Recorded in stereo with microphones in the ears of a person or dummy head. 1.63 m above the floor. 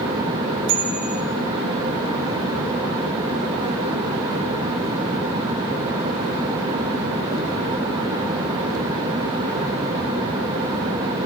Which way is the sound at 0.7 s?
65° right (ahead or behind).